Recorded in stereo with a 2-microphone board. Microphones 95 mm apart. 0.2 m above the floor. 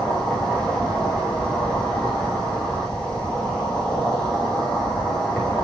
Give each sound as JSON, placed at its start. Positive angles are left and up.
{"t": 0.0, "sound": "an insect", "side_deg": 10, "distance_m": 8.5}